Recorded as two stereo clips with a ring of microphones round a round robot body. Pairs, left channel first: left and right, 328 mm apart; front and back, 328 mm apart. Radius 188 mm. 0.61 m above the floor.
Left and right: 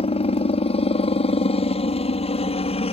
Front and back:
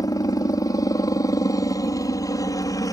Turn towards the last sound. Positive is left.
turn(degrees=60)